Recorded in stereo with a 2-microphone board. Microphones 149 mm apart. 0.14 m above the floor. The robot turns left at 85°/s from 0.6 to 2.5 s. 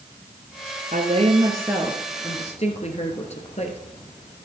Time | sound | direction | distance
0.9 | a woman speaking | 100° right | 2 m